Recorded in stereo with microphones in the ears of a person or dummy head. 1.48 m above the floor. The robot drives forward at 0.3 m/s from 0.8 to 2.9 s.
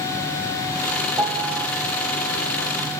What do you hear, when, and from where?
1.2 s a piano: 20° right (ahead or behind), 0.7 m